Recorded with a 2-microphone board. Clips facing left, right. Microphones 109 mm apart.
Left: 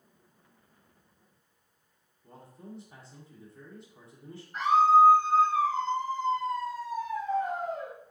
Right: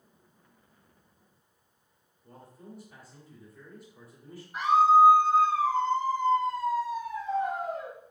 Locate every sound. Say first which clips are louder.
2.2 s a man speaking: left 1 dB; 25° left (ahead or behind), 1.5 m
4.5 s a scream: right 1 dB; 10° right (ahead or behind), 2 m